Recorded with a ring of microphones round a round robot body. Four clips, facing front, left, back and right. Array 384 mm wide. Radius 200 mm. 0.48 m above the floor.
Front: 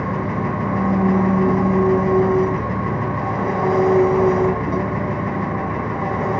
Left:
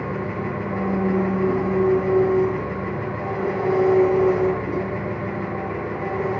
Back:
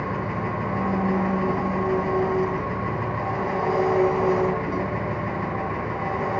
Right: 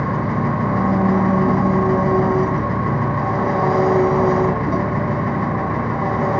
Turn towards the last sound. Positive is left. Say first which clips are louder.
# right 6 dB, front 5 dB
turn(degrees=-65)